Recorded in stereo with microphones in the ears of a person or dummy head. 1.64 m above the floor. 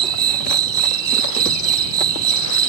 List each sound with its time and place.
0.0 s an insect: 70° right (ahead or behind)